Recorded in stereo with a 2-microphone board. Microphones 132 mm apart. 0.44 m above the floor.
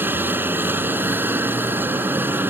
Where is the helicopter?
15° right (ahead or behind).